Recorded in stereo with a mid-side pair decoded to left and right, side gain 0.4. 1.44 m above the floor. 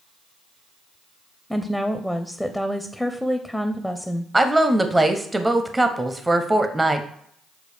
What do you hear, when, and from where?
1.5 s a woman speaking: straight ahead, 0.5 m
4.3 s a woman speaking: 20° right, 0.5 m